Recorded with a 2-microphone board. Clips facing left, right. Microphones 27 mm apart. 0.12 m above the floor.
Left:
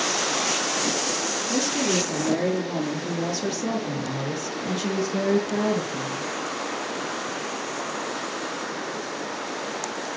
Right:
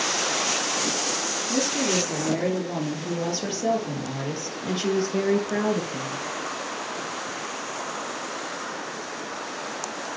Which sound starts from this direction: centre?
A woman speaking, at 1.5 s.